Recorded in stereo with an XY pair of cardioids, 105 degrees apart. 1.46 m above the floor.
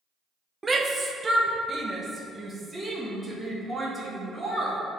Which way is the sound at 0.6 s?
25° right.